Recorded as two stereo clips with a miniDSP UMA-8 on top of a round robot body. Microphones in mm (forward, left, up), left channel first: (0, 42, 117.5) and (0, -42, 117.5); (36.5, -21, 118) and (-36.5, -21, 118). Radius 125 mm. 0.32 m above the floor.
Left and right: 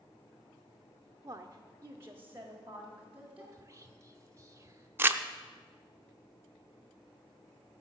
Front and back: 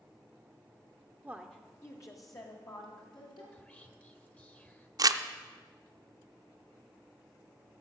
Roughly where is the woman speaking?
Behind right.